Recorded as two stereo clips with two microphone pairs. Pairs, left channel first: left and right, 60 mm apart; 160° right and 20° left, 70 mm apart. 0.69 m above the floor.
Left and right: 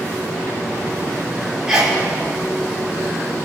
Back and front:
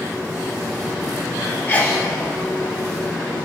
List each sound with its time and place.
1.7 s a sneeze: 165° right, 1.2 m